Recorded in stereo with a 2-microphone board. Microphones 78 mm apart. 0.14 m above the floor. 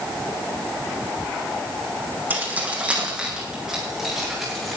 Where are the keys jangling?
25° right (ahead or behind), 4.5 m; by 4.8 s centre (ahead or behind), 7.5 m.